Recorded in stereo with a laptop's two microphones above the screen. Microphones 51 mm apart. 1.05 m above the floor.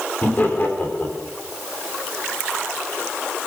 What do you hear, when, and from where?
0.2 s laughter: 35° left (ahead or behind), 3 m